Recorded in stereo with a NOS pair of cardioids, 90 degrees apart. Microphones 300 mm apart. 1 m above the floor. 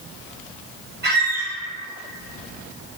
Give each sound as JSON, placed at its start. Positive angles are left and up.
{"t": 1.0, "sound": "a squeak", "azimuth_deg": -35, "distance_m": 0.8}